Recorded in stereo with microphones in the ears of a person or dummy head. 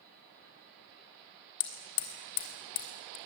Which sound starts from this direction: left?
Hammering, at 1.6 s.